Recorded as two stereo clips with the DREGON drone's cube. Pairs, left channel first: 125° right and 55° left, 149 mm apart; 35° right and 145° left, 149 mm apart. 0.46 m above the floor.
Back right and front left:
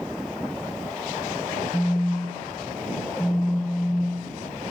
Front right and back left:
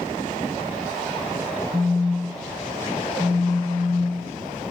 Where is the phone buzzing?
175° left, 2.0 m.